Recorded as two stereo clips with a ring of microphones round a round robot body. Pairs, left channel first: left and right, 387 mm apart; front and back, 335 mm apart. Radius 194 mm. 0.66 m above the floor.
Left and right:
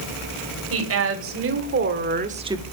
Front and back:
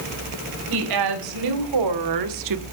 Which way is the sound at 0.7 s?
145° right.